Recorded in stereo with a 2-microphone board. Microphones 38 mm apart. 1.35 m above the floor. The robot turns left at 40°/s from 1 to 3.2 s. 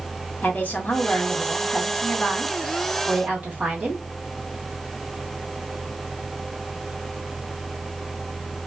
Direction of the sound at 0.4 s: 45° left.